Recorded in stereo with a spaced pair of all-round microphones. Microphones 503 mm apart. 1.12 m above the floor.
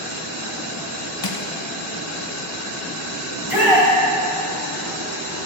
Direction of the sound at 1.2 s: 50° left (ahead or behind).